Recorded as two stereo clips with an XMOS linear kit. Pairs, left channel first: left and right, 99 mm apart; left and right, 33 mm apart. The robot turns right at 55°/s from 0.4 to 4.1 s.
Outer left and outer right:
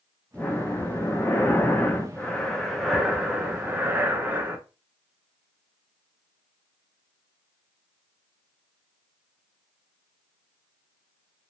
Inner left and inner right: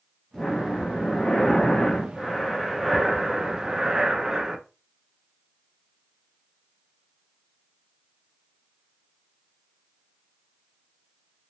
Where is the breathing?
15° left (ahead or behind), 0.6 m; by 4.6 s 20° right (ahead or behind), 0.6 m.